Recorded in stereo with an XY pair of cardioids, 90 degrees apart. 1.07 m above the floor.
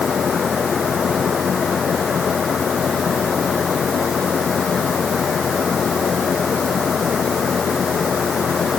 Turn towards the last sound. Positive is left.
turn(degrees=50)